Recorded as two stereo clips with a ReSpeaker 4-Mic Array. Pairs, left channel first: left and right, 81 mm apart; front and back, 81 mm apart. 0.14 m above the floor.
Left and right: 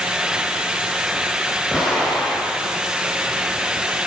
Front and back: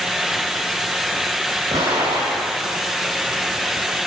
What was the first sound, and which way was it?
An explosion, 170° left.